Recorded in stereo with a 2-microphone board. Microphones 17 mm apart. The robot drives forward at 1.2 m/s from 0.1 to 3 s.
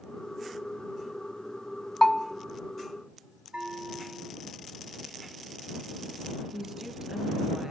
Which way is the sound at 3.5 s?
75° right (ahead or behind).